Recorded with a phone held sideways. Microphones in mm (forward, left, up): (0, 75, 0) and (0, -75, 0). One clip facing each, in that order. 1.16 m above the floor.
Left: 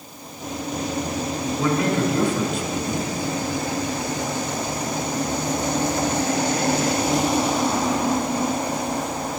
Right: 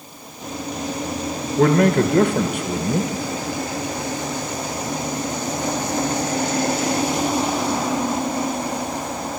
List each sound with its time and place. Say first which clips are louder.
1.6 s a man speaking: right 7 dB; 65° right (ahead or behind), 0.7 m